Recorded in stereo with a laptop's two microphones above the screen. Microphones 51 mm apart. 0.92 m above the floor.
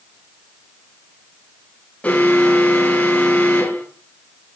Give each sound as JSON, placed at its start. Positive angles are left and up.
{"t": 2.0, "sound": "an alarm", "side_deg": 30, "distance_m": 5.5}